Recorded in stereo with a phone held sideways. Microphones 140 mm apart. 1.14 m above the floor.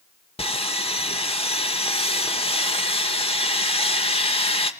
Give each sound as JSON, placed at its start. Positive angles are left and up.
{"t": 0.4, "sound": "sawing", "side_deg": 45, "distance_m": 1.1}